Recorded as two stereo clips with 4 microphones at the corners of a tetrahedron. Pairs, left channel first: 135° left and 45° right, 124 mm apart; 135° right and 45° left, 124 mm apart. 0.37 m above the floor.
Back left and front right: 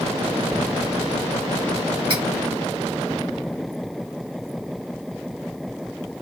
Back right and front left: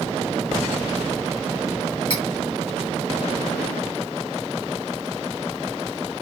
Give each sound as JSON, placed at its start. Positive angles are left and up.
{"t": 2.1, "sound": "cutlery clinking", "azimuth_deg": -85, "distance_m": 2.0}